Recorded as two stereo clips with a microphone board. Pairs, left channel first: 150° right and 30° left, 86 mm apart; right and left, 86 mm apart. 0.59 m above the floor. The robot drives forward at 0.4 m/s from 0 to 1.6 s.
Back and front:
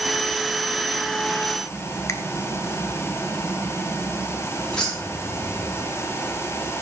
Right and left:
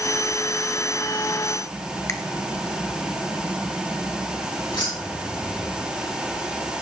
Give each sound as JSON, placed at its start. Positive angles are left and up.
{"t": 2.1, "sound": "a finger snap", "azimuth_deg": -125, "distance_m": 0.8}
{"t": 4.7, "sound": "keys jangling", "azimuth_deg": -70, "distance_m": 5.5}